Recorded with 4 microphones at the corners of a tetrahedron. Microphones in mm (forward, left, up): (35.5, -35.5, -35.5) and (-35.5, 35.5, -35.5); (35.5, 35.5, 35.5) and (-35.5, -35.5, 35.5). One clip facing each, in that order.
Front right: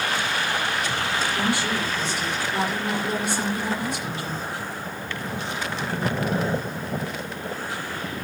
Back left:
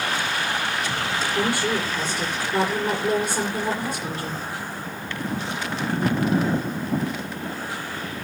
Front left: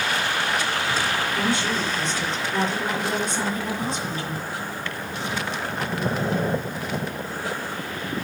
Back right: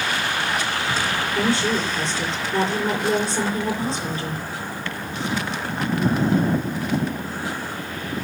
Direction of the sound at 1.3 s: 170° left.